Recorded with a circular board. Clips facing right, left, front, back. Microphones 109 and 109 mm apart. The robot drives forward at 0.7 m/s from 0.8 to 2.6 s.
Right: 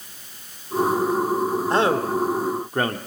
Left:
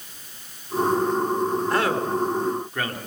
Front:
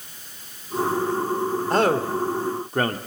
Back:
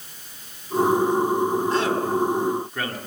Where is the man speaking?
30° right, 2 m; by 3.0 s 40° right, 1.6 m.